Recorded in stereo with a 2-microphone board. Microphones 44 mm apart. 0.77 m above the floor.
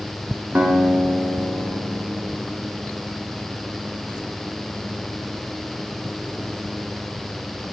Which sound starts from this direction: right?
A guitar, at 0.6 s.